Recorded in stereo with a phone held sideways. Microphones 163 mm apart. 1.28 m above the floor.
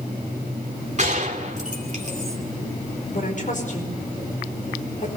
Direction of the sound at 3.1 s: 55° left (ahead or behind).